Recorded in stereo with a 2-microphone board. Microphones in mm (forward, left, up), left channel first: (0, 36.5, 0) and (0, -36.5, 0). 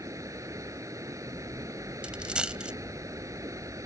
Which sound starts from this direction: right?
Running water, at 0.0 s.